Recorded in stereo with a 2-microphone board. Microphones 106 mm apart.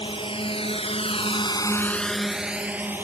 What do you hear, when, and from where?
0.0 s a drone: 55° left (ahead or behind); by 3.1 s 20° right (ahead or behind)